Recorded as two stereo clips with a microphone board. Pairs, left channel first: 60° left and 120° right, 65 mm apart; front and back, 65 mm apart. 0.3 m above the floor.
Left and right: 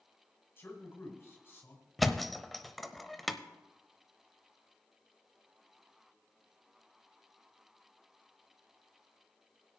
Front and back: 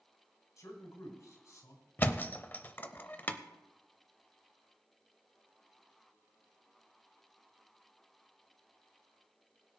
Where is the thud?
25° right, 0.6 m.